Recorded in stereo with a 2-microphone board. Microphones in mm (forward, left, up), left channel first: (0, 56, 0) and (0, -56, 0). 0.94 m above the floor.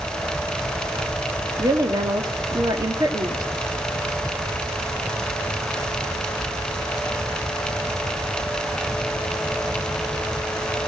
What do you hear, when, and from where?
1.6 s a woman speaking: 35° right (ahead or behind), 1.6 m